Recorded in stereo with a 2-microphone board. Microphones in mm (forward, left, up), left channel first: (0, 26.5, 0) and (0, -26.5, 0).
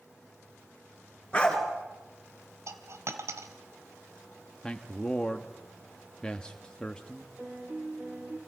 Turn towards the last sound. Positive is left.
turn(degrees=-40)  # may be behind; listen again after turning